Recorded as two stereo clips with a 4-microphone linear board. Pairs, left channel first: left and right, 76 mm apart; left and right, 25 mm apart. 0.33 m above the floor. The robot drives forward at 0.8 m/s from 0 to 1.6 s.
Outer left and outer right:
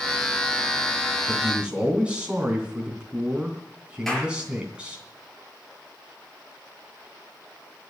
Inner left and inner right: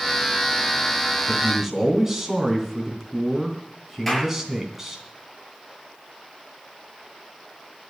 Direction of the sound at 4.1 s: 5° left (ahead or behind).